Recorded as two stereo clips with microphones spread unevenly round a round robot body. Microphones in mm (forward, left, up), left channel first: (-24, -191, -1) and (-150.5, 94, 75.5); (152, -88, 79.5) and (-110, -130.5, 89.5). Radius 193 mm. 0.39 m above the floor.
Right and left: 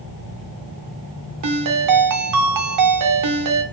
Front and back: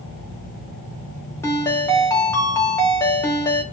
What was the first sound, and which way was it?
A ringtone, 85° left.